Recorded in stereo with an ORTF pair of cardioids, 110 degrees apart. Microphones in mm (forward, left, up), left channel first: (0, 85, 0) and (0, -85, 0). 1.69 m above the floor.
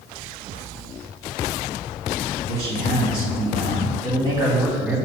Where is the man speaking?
70° right, 2.5 m; by 5.0 s 10° right, 2.5 m.